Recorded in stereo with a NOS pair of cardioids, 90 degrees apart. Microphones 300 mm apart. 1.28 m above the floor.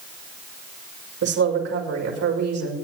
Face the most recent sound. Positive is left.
turn(degrees=-65)